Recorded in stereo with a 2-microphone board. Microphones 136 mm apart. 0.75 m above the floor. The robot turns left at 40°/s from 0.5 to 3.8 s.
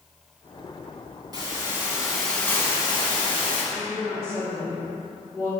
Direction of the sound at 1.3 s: 145° right.